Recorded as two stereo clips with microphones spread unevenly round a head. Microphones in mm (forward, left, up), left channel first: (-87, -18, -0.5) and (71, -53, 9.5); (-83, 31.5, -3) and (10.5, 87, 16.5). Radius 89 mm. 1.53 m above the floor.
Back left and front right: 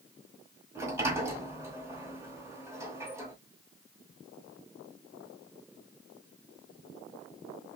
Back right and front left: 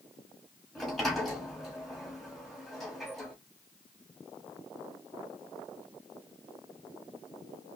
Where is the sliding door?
25° right, 1.4 m.